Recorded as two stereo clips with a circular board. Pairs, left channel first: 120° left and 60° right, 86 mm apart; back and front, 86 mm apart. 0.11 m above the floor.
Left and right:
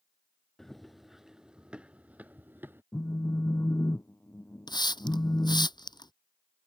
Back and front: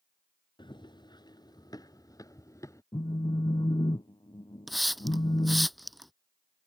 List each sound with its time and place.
0.6 s running footsteps: 155° right; by 2.8 s 125° right
2.9 s a phone buzzing: 175° left
4.7 s a hiss: 90° left